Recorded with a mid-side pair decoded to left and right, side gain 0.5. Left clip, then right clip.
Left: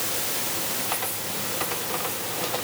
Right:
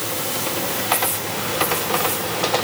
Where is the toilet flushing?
No toilet flushing in this recording.